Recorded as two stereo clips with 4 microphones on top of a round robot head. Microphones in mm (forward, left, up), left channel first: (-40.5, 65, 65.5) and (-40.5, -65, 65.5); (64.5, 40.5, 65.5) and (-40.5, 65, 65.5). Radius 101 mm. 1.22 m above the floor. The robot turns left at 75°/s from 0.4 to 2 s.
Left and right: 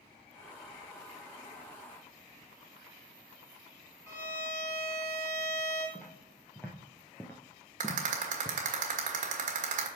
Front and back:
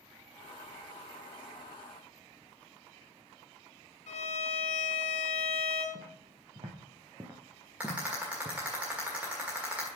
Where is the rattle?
110° right, 1.6 m.